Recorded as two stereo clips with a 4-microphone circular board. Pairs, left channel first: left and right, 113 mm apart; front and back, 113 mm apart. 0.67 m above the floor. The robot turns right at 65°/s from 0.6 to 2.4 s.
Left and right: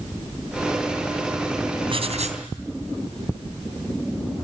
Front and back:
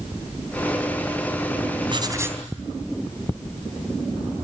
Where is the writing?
135° right, 3 m; by 2.4 s 100° right, 3 m.